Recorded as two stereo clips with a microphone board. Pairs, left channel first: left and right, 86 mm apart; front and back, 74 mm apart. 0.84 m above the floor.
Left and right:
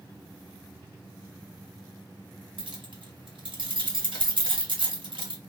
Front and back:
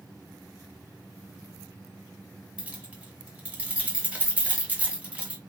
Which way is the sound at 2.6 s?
105° right.